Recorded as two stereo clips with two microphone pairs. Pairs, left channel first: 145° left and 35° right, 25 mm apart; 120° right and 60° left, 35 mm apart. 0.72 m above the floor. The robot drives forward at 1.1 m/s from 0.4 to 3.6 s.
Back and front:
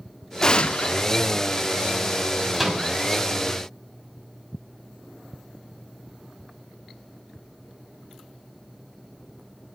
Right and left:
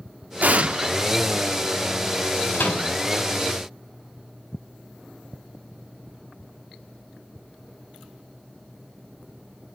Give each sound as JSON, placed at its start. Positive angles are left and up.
{"t": 0.4, "sound": "an explosion", "azimuth_deg": 80, "distance_m": 0.6}
{"t": 2.5, "sound": "a microwave", "azimuth_deg": -115, "distance_m": 3.5}